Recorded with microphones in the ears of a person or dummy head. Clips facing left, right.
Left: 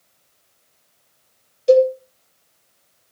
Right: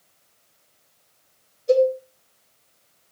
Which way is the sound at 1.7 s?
80° left.